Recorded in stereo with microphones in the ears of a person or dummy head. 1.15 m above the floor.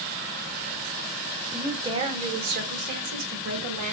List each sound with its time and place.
1.5 s a woman speaking: centre (ahead or behind), 0.6 m; by 3.9 s 65° right (ahead or behind), 1.9 m